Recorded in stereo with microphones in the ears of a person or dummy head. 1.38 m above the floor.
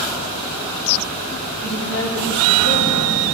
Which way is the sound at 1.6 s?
75° left (ahead or behind).